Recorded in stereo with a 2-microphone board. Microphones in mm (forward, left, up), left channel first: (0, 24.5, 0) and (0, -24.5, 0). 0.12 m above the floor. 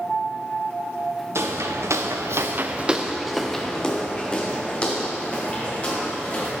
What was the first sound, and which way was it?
Footsteps, 70° right (ahead or behind).